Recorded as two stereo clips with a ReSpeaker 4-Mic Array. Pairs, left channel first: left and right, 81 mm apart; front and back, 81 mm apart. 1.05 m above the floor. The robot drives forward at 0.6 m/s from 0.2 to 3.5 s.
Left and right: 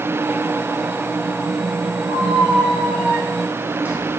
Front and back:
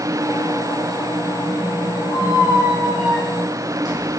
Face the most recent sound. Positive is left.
turn(degrees=-160)